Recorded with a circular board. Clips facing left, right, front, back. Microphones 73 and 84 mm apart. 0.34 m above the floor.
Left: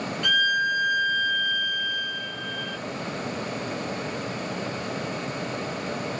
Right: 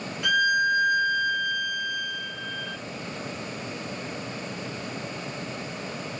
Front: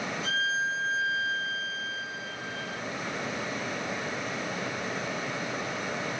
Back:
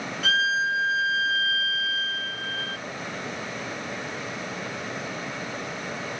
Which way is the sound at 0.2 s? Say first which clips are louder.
Right 2 dB, back 7 dB; 170° right.